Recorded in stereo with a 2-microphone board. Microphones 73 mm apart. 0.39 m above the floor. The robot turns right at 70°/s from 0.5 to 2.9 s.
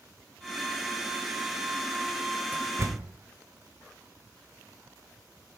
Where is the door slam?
25° right (ahead or behind), 1.1 m; by 3.1 s 45° right (ahead or behind), 1.1 m.